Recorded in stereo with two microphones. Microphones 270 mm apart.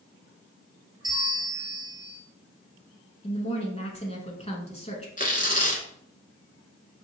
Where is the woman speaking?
25° left (ahead or behind), 1.1 m.